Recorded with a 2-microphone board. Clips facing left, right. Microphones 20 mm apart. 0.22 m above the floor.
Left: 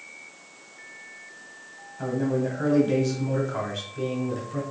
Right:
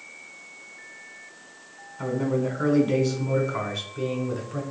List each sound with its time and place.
2.0 s a man speaking: 5° right (ahead or behind), 1.3 m; by 4.6 s 10° left (ahead or behind), 1.5 m